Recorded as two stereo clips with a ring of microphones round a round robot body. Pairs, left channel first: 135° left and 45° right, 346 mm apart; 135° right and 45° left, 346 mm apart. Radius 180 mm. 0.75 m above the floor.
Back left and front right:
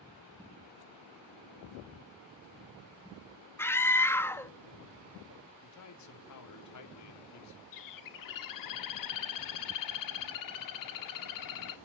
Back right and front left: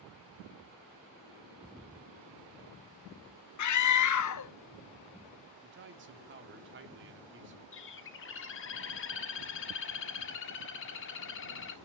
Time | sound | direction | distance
3.6 | a scream | 145° right | 1.3 m
5.6 | a man speaking | 100° left | 2.5 m
7.7 | a bird | 170° left | 1.4 m